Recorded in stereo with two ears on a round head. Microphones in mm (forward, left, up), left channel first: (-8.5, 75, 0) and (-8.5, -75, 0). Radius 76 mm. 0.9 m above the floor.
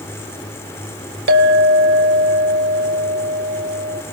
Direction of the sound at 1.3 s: 70° right (ahead or behind).